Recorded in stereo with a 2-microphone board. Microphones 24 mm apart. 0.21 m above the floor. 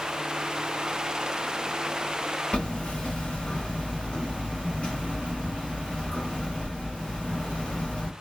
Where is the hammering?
60° left (ahead or behind), 1.0 m.